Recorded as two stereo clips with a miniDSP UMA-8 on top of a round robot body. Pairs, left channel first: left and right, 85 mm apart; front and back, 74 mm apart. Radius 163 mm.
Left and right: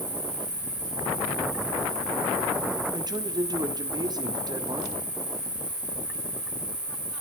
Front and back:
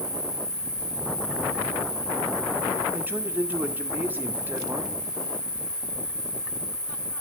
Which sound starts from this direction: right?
An insect, at 0.0 s.